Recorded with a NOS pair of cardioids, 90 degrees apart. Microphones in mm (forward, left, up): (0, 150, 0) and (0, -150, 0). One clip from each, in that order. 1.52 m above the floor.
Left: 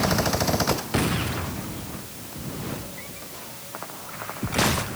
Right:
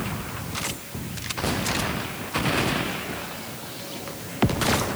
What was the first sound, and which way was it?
Only background noise.